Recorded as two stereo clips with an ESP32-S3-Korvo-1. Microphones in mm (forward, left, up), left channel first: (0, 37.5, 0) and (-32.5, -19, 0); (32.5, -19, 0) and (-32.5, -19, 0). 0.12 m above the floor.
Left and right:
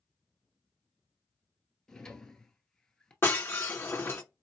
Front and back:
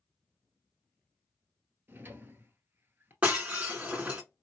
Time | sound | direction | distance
1.9 | a drawer | 135° left | 0.9 m
3.2 | breaking glass | 115° left | 1.7 m